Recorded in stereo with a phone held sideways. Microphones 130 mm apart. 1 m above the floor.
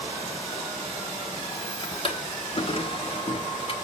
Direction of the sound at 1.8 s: 40° left (ahead or behind).